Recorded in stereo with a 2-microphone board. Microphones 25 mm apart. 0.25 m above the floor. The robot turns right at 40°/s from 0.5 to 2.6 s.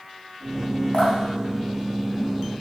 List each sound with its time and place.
0.9 s dripping: 70° left (ahead or behind), 3 m; by 1.1 s 60° left (ahead or behind), 3 m